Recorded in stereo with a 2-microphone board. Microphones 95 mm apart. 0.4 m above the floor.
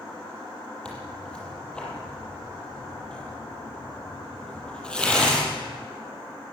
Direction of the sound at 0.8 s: 10° left (ahead or behind).